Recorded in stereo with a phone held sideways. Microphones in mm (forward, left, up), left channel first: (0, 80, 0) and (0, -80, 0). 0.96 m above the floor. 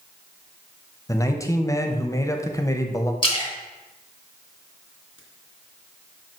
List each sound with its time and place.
1.1 s a man speaking: 20° left (ahead or behind), 0.8 m
3.2 s a splash: 35° left (ahead or behind), 2 m